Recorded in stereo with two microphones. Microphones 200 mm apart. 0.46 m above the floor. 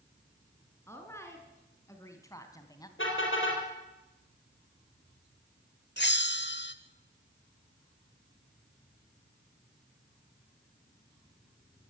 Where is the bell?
60° left (ahead or behind), 1.1 m.